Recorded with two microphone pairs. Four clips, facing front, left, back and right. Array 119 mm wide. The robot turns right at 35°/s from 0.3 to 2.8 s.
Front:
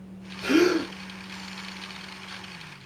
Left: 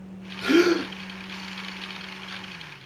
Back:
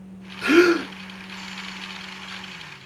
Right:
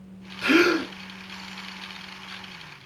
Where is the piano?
No piano in this recording.